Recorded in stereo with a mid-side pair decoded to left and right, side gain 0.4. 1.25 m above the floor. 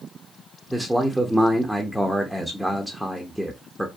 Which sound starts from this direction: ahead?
A man speaking, at 0.7 s.